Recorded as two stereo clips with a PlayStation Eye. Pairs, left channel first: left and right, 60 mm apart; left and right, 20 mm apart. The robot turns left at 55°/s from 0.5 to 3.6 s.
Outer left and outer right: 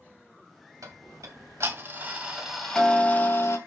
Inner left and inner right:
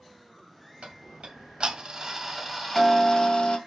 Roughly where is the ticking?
Right.